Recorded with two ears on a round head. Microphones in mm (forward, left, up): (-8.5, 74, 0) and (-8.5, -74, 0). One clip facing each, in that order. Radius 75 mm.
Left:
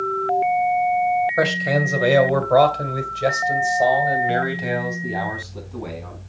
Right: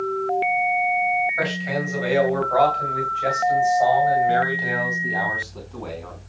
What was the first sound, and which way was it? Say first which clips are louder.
A man speaking: left 5 dB; 60° left (ahead or behind).